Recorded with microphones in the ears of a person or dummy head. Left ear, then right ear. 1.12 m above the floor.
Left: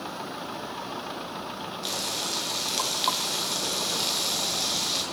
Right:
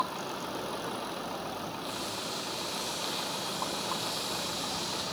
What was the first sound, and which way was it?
Frying, 55° left (ahead or behind).